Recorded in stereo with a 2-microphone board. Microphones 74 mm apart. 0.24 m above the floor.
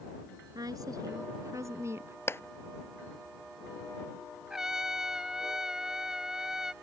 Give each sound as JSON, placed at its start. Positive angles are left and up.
{"t": 0.6, "sound": "a woman speaking", "side_deg": -60}
{"t": 2.3, "sound": "a clap", "side_deg": 35}
{"t": 4.5, "sound": "a trumpet", "side_deg": -5}